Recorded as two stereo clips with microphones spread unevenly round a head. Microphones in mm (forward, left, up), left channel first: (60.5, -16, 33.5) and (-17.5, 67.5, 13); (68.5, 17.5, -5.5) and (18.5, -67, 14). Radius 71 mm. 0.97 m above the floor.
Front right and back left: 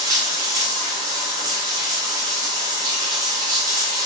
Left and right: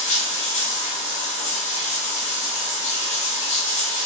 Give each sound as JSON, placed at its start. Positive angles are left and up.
{"t": 0.0, "sound": "running water", "azimuth_deg": 70, "distance_m": 1.2}